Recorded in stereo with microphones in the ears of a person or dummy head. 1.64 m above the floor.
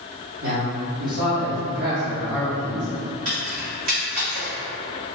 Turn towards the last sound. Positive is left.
turn(degrees=-50)  # may be behind; listen again after turning